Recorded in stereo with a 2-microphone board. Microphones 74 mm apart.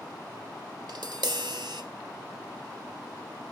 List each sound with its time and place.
0.9 s tapping: 80° right, 1.5 m